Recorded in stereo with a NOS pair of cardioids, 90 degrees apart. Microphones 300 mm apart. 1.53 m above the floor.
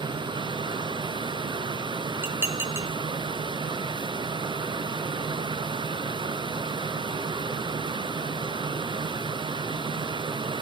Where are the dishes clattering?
5° right, 2.5 m.